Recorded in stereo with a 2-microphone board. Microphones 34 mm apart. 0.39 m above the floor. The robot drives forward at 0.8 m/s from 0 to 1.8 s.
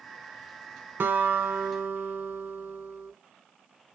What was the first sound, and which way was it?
A guitar, 80° right.